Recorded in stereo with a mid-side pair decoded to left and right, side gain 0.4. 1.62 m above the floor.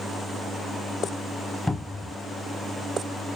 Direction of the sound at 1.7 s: 20° left.